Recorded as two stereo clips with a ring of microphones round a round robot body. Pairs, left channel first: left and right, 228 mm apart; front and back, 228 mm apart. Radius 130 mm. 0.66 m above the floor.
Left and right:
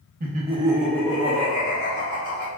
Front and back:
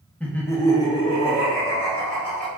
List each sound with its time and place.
0.2 s laughter: 85° right, 0.7 m; by 2.5 s 65° left, 1.2 m